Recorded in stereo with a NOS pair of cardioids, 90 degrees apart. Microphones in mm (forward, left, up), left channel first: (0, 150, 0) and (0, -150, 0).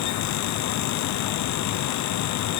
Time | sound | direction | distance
0.0 | a fan | 65° left | 0.7 m